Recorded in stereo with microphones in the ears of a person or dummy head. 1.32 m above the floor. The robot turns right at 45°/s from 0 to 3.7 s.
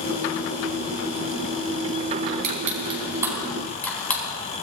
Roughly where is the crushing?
Right.